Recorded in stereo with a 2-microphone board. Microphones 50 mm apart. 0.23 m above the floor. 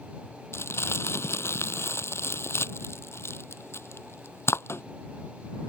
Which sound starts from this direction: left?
Crumpling, at 0.5 s.